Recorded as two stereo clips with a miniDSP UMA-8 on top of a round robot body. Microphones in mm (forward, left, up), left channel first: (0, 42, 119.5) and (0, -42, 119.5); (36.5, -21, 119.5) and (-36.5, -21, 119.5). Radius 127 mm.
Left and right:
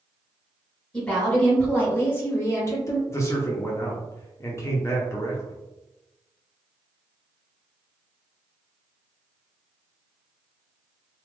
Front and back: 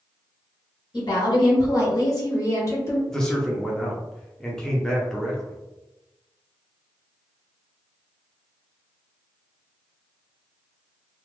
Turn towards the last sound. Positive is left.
turn(degrees=75)